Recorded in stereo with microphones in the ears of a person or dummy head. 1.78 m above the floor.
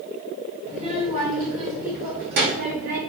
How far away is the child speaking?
About 1.9 m.